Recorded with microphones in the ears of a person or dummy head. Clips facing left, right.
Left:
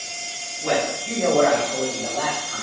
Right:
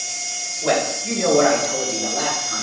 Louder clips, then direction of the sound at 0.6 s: Right 2 dB; 85° right.